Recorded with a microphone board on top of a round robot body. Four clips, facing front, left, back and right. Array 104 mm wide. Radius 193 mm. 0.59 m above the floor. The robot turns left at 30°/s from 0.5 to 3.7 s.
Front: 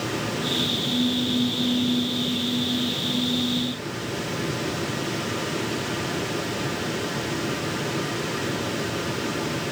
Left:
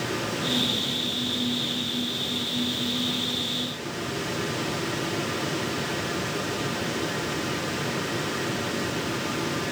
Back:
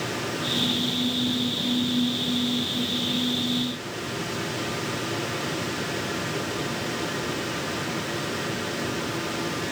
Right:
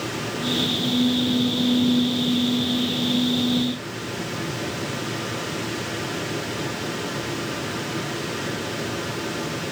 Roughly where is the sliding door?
I don't hear a sliding door.